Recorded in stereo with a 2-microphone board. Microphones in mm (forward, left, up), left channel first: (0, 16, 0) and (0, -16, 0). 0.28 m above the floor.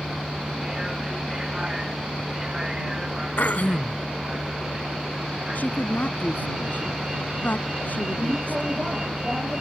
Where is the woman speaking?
60° left (ahead or behind).